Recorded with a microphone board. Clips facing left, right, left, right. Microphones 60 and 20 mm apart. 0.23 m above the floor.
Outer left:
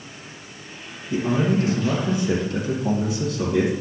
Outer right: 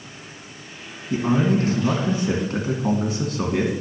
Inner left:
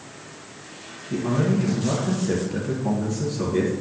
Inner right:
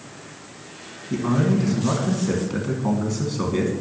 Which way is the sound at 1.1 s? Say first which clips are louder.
Outer right 1 dB, inner right 2 dB; 55° right (ahead or behind).